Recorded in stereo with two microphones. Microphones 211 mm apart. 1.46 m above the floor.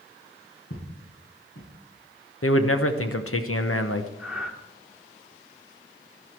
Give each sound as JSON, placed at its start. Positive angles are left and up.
{"t": 0.7, "sound": "footsteps", "side_deg": 75, "distance_m": 7.0}
{"t": 2.4, "sound": "a man speaking", "side_deg": 80, "distance_m": 1.0}
{"t": 4.2, "sound": "breathing", "side_deg": -5, "distance_m": 1.4}